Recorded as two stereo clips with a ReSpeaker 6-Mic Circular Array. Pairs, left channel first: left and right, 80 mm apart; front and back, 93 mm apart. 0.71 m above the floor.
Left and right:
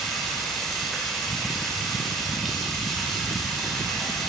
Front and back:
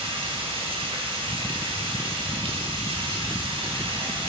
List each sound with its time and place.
0.0 s running water: 175° left, 1.8 m